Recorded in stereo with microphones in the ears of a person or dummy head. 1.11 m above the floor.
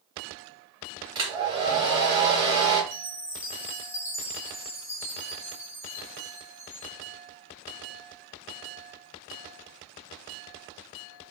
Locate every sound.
1.1 s a hair dryer: 30° right (ahead or behind), 1.2 m
2.9 s a chime: 15° left (ahead or behind), 0.6 m